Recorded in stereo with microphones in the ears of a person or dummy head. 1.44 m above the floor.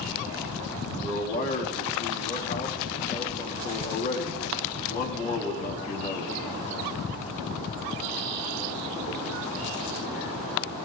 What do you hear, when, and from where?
1.0 s a man speaking: 45° left (ahead or behind), 3.5 m